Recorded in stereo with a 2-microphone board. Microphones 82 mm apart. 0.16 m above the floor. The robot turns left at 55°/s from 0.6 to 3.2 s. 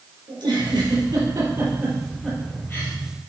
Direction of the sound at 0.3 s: 70° right (ahead or behind).